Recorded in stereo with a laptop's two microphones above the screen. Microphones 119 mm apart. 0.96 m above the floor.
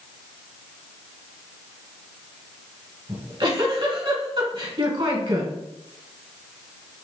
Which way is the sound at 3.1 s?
50° right (ahead or behind).